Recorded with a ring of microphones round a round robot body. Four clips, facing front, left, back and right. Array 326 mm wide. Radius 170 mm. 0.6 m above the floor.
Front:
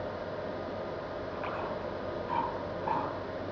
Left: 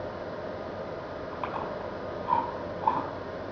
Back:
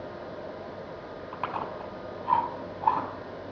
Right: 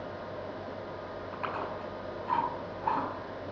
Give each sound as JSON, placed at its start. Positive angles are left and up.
{"t": 1.3, "sound": "chewing", "azimuth_deg": 175, "distance_m": 5.5}